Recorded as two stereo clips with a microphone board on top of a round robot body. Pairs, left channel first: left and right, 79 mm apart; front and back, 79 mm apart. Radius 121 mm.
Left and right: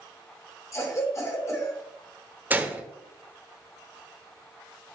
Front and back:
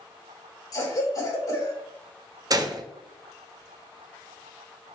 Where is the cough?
40° left, 3 m.